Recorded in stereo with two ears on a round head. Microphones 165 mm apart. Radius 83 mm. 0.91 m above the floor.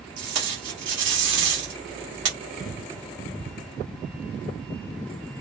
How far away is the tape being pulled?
About 1.3 m.